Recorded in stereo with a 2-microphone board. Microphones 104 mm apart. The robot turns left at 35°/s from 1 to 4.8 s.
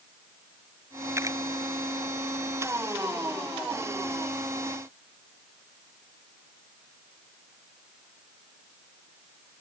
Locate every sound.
1.2 s a camera shutter: 25° right (ahead or behind); by 1.4 s 35° right (ahead or behind)